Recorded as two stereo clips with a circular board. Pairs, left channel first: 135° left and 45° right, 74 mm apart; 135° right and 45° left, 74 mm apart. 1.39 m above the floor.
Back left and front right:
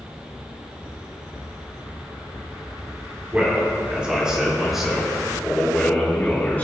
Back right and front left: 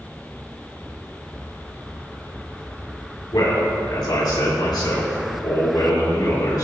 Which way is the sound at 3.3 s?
115° right.